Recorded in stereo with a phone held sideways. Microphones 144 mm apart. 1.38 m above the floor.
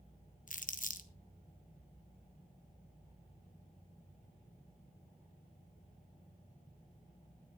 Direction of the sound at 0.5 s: 60° left (ahead or behind).